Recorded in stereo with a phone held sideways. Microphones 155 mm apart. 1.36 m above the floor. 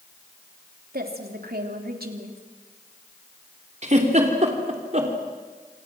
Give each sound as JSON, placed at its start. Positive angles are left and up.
{"t": 0.9, "sound": "a woman speaking", "side_deg": -85, "distance_m": 3.0}
{"t": 3.8, "sound": "a giggle", "side_deg": -50, "distance_m": 3.0}